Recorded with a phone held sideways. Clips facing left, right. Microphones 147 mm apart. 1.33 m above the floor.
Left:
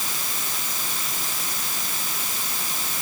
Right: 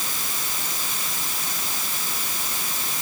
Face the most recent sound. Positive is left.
No sound to turn to.